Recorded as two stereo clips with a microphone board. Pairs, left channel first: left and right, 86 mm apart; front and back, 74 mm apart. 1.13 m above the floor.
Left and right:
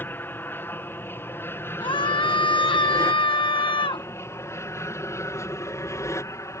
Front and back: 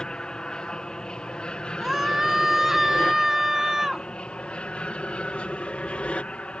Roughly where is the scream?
Left.